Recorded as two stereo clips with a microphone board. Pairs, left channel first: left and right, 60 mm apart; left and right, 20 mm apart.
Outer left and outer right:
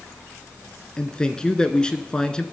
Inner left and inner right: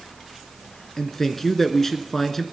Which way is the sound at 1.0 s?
15° left (ahead or behind).